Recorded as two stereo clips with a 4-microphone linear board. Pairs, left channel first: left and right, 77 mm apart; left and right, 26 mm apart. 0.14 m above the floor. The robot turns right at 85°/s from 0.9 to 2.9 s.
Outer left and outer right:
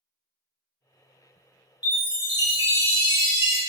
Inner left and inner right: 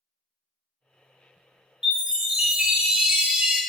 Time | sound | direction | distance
1.8 | a chime | 155° right | 0.8 m